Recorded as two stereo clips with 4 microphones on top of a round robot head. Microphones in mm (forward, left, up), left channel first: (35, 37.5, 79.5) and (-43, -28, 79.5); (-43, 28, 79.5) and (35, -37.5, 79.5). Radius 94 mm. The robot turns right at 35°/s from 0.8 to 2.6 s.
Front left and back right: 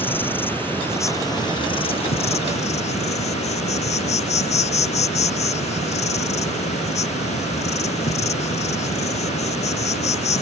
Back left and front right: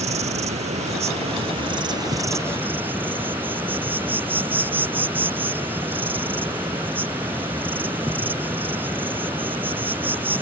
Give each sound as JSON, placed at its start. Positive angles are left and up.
{"t": 0.0, "sound": "an insect", "azimuth_deg": -30}